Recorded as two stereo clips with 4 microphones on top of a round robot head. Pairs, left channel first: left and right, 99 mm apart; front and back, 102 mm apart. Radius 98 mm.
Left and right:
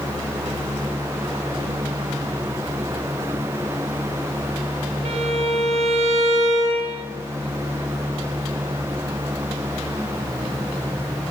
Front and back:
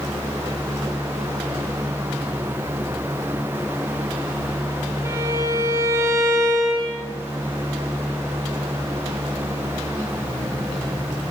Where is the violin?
110° right, 2 m.